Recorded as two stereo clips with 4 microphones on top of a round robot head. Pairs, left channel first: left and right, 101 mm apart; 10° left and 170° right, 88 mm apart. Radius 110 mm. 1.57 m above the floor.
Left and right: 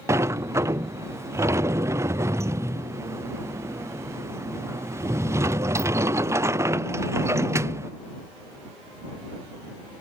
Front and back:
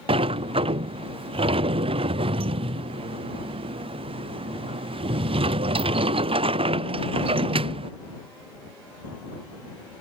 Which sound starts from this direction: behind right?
A sliding door, at 0.1 s.